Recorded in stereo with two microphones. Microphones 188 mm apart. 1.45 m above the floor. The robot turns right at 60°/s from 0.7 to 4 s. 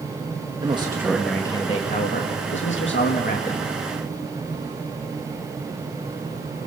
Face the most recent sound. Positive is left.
turn(degrees=170)